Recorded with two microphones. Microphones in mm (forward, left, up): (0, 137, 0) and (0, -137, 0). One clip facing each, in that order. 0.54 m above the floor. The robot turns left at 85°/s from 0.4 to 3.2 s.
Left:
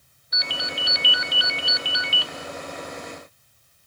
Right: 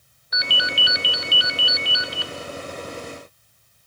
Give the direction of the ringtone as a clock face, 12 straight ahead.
2 o'clock.